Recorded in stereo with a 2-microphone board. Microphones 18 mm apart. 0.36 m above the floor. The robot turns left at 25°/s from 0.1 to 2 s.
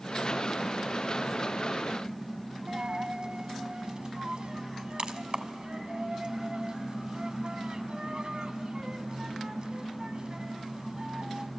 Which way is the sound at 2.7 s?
50° right (ahead or behind).